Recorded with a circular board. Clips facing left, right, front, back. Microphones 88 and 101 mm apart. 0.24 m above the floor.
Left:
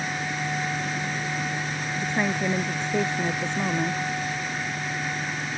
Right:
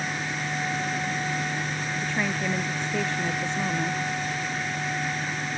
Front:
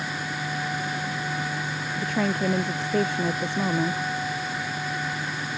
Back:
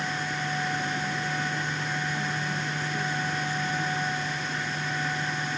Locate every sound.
2.0 s a woman speaking: 15° left